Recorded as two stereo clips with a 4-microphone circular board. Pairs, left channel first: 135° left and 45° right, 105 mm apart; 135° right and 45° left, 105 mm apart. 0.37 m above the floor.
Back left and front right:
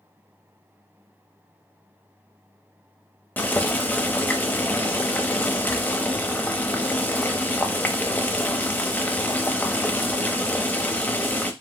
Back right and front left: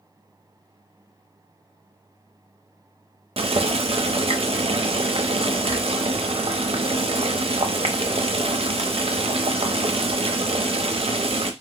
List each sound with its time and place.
3.4 s boiling: 65° left, 0.6 m